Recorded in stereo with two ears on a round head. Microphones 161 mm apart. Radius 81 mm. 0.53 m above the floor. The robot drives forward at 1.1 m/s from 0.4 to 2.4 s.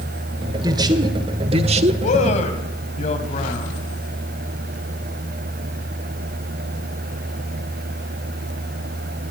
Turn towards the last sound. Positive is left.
turn(degrees=40)  # may be behind; listen again after turning